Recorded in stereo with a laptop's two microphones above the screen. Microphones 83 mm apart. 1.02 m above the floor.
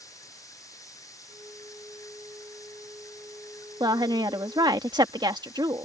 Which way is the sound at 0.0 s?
45° left (ahead or behind).